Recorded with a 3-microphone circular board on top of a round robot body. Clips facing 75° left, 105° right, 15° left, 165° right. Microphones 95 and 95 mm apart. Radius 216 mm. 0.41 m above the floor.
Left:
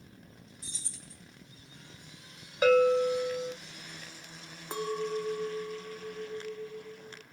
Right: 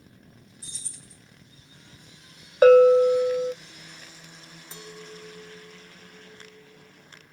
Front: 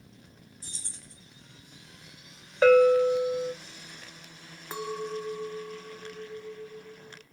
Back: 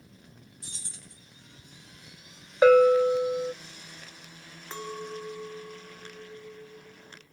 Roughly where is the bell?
Right.